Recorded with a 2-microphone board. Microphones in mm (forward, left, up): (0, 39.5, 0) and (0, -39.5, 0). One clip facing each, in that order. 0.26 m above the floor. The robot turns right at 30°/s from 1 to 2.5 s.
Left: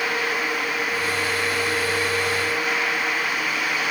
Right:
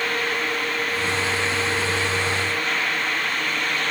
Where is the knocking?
No knocking in this recording.